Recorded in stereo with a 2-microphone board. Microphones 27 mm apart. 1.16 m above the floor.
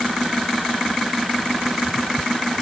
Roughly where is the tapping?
No tapping in this recording.